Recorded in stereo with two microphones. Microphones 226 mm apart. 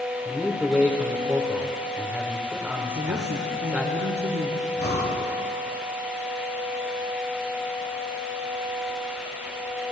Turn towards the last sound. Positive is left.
turn(degrees=45)  # may be behind; listen again after turning